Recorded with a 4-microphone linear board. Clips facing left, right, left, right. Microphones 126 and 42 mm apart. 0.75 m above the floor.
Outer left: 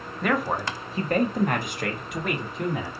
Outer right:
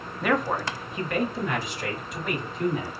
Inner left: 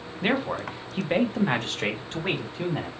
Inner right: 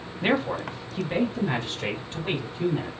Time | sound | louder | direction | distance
0.2 | a man speaking | even, inner right 1 dB | 5° right (ahead or behind) | 0.6 m